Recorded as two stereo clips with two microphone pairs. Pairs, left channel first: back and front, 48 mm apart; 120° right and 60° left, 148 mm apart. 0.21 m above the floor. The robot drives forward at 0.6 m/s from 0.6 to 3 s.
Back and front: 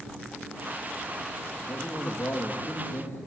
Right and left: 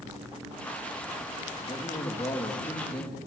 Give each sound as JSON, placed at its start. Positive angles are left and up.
{"t": 1.7, "sound": "a man speaking", "azimuth_deg": -170, "distance_m": 6.0}